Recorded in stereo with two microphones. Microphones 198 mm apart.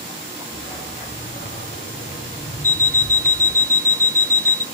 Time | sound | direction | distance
0.5 | a dog barking | 70° left (ahead or behind) | 8 m
2.6 | an alarm clock | 45° right (ahead or behind) | 1.0 m